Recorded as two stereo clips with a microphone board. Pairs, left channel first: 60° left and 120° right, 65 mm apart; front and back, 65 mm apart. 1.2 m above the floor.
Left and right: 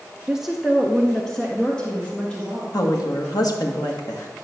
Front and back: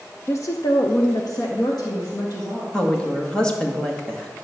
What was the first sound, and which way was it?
A woman speaking, 45° right.